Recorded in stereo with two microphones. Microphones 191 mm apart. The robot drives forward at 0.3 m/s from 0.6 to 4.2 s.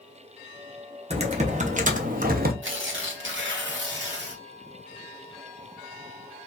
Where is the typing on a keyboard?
30° right (ahead or behind), 1.0 m; by 2.5 s 50° right (ahead or behind), 0.7 m.